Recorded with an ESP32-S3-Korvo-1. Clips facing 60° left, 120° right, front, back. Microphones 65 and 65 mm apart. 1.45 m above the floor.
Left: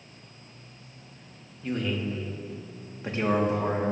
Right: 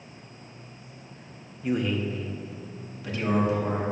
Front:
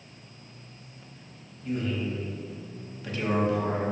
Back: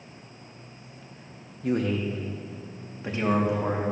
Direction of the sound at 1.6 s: 165° left.